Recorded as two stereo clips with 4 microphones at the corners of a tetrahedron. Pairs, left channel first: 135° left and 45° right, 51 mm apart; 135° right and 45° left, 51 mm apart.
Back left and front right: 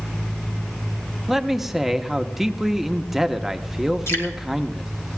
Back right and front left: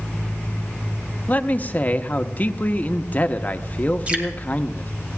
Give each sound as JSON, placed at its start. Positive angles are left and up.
{"t": 1.3, "sound": "a man speaking", "azimuth_deg": -125, "distance_m": 0.7}
{"t": 4.1, "sound": "dripping", "azimuth_deg": 110, "distance_m": 2.0}